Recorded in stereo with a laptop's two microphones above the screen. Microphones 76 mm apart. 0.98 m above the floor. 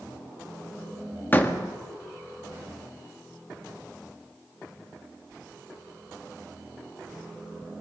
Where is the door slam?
25° left (ahead or behind), 1.5 m.